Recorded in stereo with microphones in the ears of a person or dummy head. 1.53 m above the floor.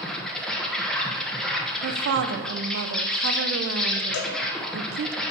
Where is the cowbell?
70° left (ahead or behind), 1.4 m.